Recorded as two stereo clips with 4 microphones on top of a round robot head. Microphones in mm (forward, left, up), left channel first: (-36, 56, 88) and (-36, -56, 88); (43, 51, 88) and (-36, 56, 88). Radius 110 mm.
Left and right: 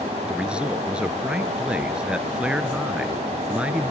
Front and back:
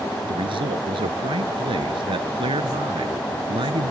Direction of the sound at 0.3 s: 170° right.